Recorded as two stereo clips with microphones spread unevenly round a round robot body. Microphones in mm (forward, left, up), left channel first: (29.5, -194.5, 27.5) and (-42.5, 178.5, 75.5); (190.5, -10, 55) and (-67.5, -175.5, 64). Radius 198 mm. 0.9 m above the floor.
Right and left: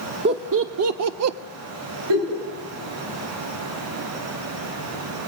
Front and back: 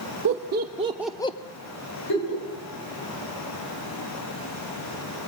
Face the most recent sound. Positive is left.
turn(degrees=75)